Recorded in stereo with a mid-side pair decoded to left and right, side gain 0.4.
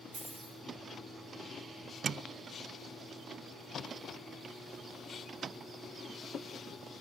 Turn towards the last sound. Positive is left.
turn(degrees=-60)